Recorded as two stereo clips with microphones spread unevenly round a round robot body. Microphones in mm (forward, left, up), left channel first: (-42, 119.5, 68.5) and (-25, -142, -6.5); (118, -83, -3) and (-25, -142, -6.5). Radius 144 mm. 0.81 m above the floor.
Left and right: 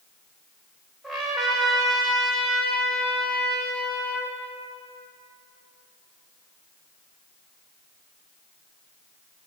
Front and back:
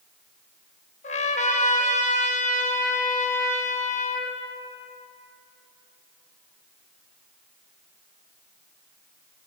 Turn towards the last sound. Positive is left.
turn(degrees=15)